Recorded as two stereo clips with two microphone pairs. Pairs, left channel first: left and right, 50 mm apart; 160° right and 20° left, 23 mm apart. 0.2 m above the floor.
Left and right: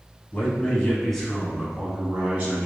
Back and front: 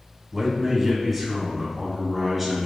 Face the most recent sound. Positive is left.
turn(degrees=-70)